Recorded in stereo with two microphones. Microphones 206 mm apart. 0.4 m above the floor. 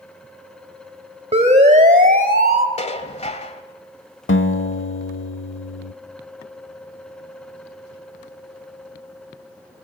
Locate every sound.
1.3 s a siren: 30° right (ahead or behind), 2.5 m; by 2.7 s 45° right (ahead or behind), 1.9 m
2.8 s dishes clattering: 30° left (ahead or behind), 1.5 m
4.3 s a guitar: 70° left (ahead or behind), 0.8 m